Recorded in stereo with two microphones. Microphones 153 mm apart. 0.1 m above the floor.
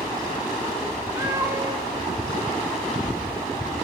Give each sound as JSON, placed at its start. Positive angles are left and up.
{"t": 1.2, "sound": "a cat meowing", "side_deg": -20, "distance_m": 4.5}